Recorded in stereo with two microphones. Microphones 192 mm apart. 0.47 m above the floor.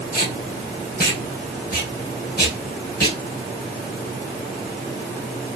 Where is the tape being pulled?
50° left (ahead or behind), 4 m.